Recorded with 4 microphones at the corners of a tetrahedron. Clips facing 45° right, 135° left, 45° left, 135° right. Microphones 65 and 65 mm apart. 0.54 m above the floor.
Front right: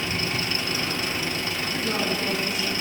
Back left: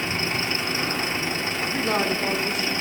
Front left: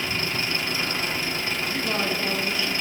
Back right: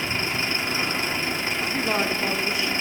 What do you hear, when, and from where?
0.0 s an engine running: 175° left, 0.9 m
1.6 s a man speaking: 160° left, 1.0 m